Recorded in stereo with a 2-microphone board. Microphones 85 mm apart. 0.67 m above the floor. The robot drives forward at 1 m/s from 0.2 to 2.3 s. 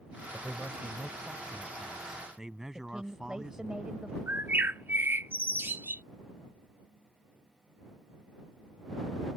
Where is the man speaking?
10° right (ahead or behind); by 3.8 s 5° right (ahead or behind).